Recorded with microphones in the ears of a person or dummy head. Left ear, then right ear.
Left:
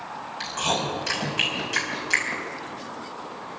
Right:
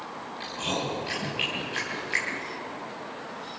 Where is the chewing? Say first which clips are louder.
Left 5 dB; 50° left (ahead or behind), 5.5 m.